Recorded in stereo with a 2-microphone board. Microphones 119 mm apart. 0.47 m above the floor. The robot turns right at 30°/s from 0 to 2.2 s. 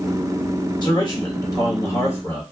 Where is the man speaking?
105° left, 1.2 m; by 2.4 s 145° left, 1.2 m.